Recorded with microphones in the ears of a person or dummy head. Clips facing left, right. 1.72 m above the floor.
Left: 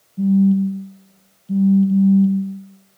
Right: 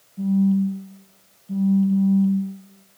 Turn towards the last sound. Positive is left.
turn(degrees=15)  # may be behind; listen again after turning